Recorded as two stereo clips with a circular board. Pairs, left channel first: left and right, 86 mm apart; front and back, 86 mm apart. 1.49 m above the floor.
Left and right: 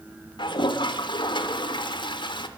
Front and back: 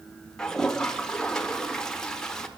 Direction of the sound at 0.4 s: 80° left.